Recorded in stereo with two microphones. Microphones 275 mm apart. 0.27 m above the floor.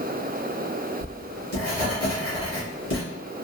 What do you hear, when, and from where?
1.0 s writing: 55° left (ahead or behind), 1.3 m